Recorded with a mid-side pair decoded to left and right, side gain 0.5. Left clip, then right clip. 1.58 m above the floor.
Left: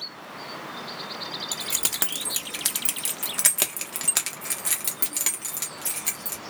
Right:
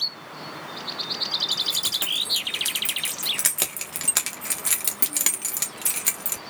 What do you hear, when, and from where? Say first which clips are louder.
1.5 s keys jangling: right 5 dB; 50° left, 1.7 m; by 6.4 s 40° right, 2 m